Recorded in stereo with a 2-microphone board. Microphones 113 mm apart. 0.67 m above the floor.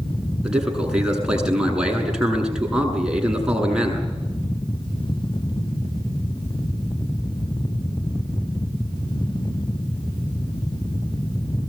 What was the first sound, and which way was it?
A man speaking, 5° right (ahead or behind).